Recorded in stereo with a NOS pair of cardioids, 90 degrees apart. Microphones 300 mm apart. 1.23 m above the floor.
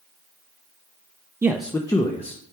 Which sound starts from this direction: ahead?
A man speaking, at 1.4 s.